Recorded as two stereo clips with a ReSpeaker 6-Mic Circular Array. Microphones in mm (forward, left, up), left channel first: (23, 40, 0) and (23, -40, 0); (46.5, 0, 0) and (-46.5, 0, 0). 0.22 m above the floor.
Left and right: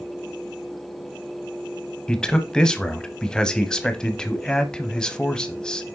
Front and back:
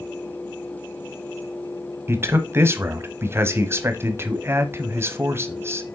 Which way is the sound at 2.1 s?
160° left.